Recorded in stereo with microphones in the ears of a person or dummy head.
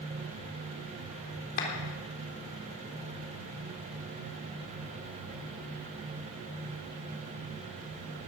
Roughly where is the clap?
Left.